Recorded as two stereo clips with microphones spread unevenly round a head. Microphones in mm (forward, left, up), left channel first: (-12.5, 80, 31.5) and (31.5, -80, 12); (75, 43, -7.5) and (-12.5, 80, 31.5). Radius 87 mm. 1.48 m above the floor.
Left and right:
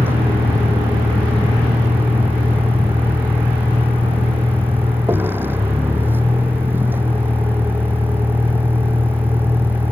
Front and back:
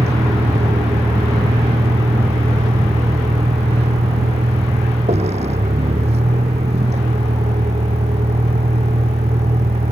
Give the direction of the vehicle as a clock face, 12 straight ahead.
5 o'clock.